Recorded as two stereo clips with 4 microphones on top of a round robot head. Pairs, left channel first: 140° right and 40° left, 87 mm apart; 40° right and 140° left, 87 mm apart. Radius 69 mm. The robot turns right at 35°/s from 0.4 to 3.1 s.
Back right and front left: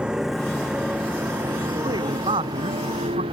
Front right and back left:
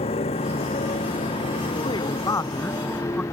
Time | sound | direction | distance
0.0 | a motorcycle | 40° right | ?
1.8 | a man speaking | 5° right | ?